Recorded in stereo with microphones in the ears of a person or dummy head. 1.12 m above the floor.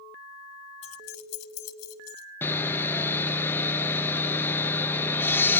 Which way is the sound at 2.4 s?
15° left (ahead or behind).